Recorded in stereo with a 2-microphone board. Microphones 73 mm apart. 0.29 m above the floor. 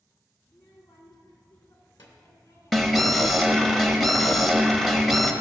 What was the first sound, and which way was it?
A child speaking, 60° left (ahead or behind).